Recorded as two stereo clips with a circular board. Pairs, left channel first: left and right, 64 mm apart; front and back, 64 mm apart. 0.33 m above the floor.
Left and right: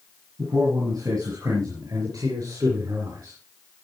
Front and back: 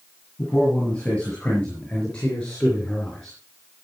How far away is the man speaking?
About 7 m.